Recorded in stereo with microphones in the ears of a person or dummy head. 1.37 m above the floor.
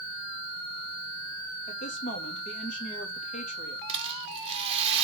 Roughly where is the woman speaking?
Left.